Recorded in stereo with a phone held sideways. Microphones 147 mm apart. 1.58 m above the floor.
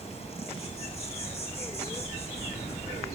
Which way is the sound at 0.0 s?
45° left (ahead or behind).